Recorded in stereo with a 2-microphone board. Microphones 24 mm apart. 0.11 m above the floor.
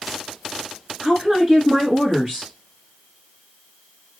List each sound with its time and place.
1.0 s a woman speaking: 25° right (ahead or behind), 1.4 m